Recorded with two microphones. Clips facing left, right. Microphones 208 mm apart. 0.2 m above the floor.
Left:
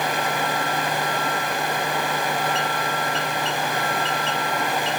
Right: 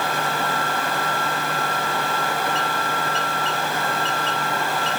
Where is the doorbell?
No doorbell in this recording.